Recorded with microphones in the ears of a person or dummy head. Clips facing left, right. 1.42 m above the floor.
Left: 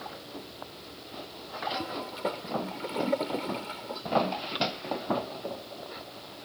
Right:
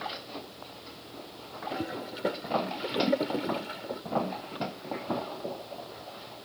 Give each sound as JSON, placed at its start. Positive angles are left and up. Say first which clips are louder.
{"t": 1.7, "sound": "a toilet flushing", "louder": "right 4 dB", "side_deg": -15}